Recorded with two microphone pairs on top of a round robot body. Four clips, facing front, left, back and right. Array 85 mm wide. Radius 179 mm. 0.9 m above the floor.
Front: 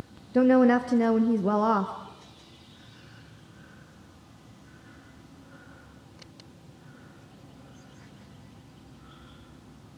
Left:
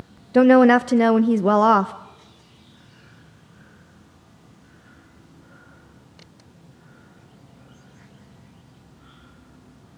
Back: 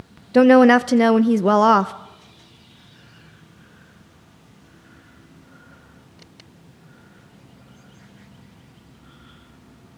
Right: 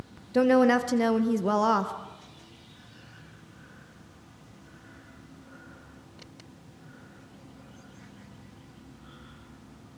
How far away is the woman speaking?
About 0.6 m.